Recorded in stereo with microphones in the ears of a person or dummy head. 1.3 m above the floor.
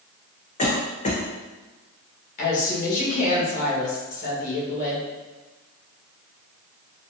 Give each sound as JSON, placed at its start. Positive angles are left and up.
{"t": 0.6, "sound": "a cough", "side_deg": 40, "distance_m": 1.0}
{"t": 2.4, "sound": "a woman speaking", "side_deg": 40, "distance_m": 1.5}